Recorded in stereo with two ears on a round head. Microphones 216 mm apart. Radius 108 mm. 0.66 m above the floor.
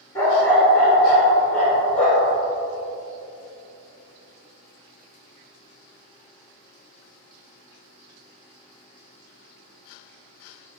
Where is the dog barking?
10° left (ahead or behind), 2 m; by 2.3 s 5° left (ahead or behind), 4.5 m.